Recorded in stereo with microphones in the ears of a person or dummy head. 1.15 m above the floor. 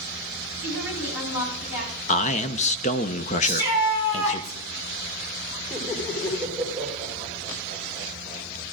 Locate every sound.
0.6 s a woman speaking: 85° left, 9.5 m
2.1 s a man speaking: 40° left (ahead or behind), 0.9 m
3.4 s a shout: 90° left, 10 m
5.7 s laughter: 15° left (ahead or behind), 3 m